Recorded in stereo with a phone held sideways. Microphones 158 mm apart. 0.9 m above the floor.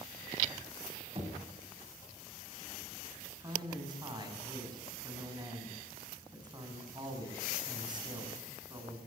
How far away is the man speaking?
About 7.5 m.